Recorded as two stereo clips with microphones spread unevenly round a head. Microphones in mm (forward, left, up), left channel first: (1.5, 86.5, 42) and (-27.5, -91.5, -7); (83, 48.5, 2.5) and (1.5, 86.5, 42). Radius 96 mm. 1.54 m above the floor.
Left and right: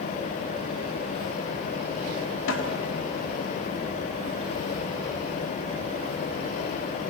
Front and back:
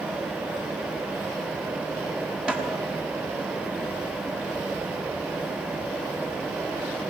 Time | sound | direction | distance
2.5 | a snare drum | 80° left | 5.5 m